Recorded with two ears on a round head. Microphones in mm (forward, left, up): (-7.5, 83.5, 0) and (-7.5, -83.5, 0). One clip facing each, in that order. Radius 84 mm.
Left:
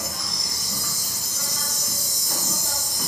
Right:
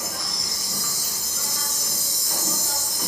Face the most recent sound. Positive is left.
turn(degrees=20)  # may be behind; listen again after turning